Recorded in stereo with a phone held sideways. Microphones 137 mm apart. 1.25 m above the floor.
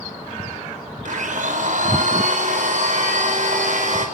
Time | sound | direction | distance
1.1 | a blender | 65° right (ahead or behind) | 5 m